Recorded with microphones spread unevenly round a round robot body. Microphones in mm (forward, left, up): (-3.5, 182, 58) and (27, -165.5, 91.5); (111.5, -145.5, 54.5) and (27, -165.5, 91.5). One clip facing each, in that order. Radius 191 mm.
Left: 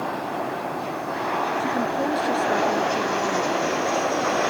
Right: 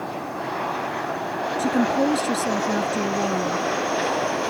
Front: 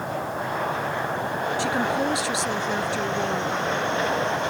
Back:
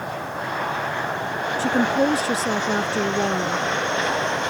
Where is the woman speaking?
125° right.